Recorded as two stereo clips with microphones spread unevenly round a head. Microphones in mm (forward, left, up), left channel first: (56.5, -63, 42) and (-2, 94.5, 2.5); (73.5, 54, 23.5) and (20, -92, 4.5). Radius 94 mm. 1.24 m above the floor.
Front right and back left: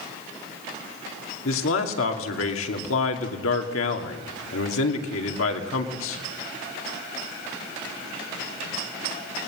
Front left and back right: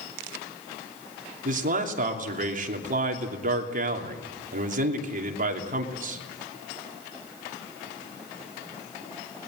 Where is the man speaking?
75° right, 3 m.